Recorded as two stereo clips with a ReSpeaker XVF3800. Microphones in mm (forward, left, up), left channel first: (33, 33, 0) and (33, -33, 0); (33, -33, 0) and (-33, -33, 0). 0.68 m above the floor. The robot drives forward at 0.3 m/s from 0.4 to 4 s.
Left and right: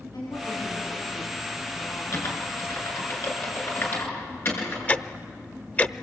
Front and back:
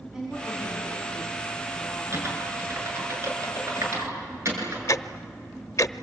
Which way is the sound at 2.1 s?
135° left.